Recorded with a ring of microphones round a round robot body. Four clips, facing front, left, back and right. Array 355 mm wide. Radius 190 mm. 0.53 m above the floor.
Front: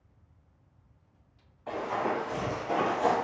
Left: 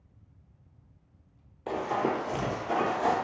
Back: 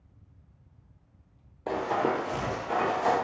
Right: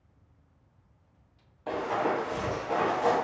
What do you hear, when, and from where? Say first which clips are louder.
1.7 s running footsteps: even, back 3 dB; 160° left, 0.8 m; by 3.1 s 30° left, 0.9 m